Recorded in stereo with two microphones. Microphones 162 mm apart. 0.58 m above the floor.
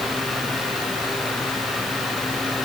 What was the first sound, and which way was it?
Only background noise.